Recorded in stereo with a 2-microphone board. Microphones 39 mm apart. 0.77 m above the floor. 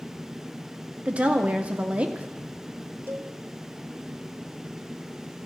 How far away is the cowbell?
About 0.8 m.